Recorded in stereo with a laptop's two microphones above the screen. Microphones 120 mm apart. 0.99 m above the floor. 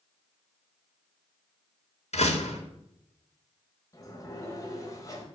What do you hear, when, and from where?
2.1 s a door slam: 70° left (ahead or behind), 1.9 m
3.9 s a sliding door: 30° left (ahead or behind), 1.3 m